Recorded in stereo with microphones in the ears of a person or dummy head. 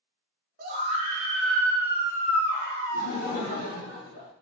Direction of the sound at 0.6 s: 40° right (ahead or behind).